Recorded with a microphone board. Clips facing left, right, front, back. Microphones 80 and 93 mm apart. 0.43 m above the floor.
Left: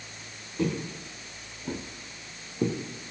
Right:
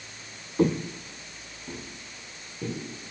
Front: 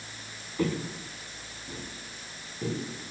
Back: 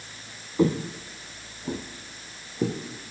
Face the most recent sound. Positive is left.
turn(degrees=135)